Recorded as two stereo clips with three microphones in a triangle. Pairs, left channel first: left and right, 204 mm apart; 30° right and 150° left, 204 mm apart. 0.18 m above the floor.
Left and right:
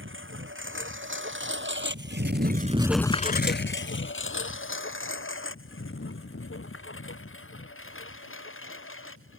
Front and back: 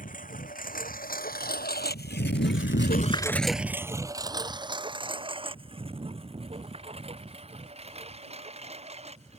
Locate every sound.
0.0 s a lawn mower: 80° right; by 9.4 s 90° left